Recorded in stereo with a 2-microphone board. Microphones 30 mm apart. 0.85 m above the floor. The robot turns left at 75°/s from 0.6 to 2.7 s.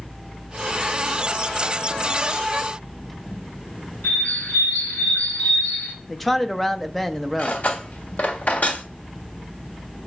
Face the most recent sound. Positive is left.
turn(degrees=65)  # may be behind; listen again after turning